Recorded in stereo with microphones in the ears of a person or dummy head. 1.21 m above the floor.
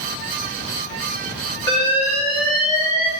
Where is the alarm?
15° left (ahead or behind), 4 m.